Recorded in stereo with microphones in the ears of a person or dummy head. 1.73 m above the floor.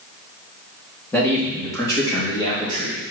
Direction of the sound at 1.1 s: 15° left (ahead or behind).